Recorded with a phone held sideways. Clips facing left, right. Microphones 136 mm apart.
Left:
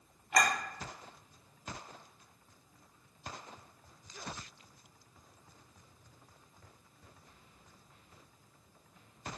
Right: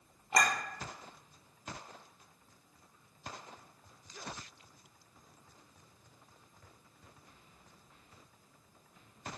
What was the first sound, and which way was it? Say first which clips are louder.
A clink: left 1 dB; 30° right (ahead or behind).